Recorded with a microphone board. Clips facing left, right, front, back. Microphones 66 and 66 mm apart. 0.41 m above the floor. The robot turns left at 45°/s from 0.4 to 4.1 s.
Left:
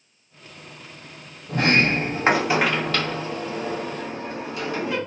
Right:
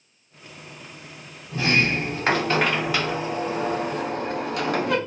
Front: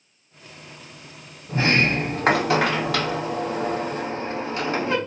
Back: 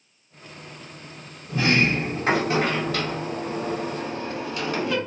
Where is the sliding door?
55° left, 0.6 m; by 5.0 s 60° right, 0.6 m.